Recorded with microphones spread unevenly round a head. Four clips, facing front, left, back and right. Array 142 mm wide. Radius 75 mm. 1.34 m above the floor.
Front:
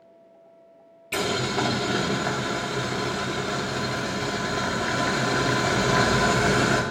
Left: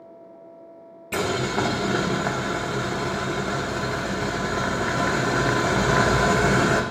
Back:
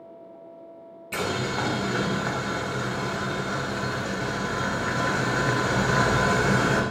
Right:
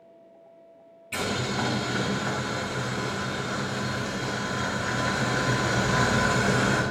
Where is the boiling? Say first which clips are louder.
Left 5 dB, front 2 dB; 70° left, 0.8 m.